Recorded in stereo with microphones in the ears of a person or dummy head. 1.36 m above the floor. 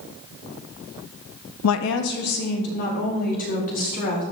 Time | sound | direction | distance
1.6 | a woman speaking | 85° left | 0.5 m